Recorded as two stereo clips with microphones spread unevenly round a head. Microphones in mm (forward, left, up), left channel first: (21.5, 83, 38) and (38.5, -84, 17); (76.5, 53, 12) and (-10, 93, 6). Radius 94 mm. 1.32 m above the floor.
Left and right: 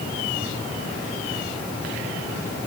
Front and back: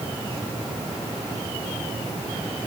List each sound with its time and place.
Only background noise.